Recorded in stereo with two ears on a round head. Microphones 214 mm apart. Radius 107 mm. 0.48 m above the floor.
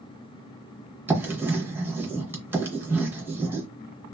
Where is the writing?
10° right (ahead or behind), 0.6 m.